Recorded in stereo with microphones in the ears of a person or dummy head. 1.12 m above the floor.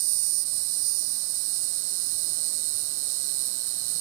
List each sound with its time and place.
0.0 s an insect: 70° right (ahead or behind)